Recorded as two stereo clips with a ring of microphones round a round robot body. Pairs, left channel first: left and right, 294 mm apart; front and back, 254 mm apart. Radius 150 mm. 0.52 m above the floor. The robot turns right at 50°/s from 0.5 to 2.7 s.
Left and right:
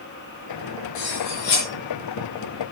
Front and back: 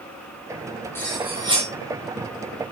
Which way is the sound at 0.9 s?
80° left.